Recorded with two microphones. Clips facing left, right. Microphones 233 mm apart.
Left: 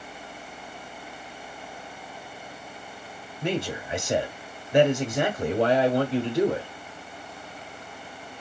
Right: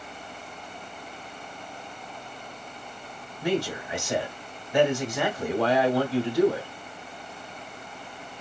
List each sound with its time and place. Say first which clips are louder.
3.4 s a man speaking: right 2 dB; 25° left (ahead or behind), 1.0 m